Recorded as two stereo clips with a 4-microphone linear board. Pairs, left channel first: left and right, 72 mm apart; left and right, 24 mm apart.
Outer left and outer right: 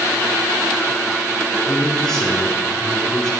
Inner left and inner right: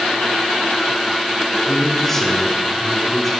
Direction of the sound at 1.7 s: 10° left (ahead or behind).